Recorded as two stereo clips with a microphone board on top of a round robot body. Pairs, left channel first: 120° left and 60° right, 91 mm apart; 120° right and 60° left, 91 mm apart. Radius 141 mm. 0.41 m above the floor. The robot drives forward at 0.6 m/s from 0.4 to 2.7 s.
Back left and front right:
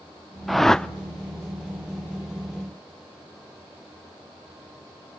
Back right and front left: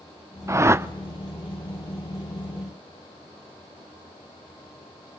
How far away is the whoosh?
About 1.0 m.